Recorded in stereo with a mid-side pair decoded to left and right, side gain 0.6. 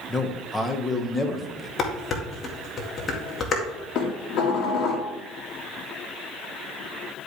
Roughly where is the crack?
I don't hear a crack.